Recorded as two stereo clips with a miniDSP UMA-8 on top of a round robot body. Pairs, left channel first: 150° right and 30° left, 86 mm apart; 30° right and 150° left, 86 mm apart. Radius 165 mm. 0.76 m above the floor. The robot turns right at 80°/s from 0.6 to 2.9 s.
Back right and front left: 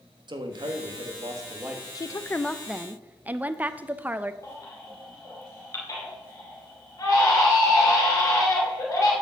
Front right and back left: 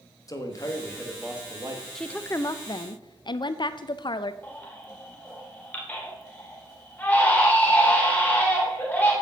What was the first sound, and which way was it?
A man speaking, 10° left.